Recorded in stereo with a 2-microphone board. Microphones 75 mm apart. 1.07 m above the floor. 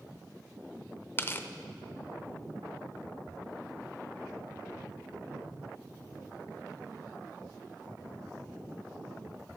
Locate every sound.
1.2 s tearing paper: 30° left (ahead or behind), 0.5 m